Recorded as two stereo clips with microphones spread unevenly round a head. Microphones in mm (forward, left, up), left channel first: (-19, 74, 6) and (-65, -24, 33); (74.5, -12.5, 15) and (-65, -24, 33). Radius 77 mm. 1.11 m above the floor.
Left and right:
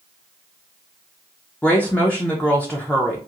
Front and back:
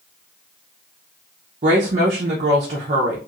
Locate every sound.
1.6 s a woman speaking: 140° left, 0.6 m